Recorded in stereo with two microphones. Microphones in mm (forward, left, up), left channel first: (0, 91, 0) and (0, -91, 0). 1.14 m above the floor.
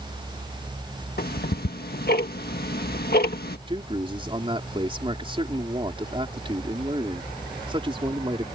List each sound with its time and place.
1.2 s ticking: 60° left (ahead or behind)
3.7 s a man speaking: 30° right (ahead or behind)